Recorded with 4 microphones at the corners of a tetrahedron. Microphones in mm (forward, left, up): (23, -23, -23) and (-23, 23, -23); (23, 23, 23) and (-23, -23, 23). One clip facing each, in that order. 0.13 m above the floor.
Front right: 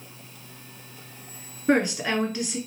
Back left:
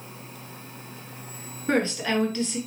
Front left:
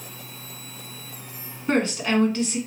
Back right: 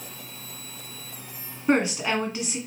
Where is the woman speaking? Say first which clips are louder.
Front right 2 dB, even; 90° right, 1.2 m.